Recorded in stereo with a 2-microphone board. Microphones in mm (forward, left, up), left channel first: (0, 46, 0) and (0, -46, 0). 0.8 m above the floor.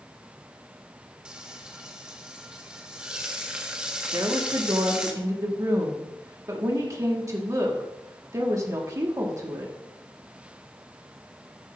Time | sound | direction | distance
1.2 | frying | 10° right (ahead or behind) | 1.2 m
4.1 | a woman speaking | 35° right (ahead or behind) | 1.9 m